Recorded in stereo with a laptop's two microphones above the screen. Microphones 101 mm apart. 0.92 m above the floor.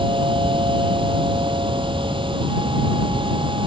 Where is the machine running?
55° right (ahead or behind).